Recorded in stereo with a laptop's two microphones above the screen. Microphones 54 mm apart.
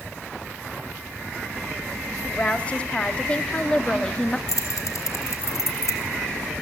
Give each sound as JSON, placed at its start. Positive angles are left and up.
{"t": 2.2, "sound": "a woman speaking", "side_deg": 30, "distance_m": 2.5}
{"t": 4.5, "sound": "keys jangling", "side_deg": 75, "distance_m": 3.5}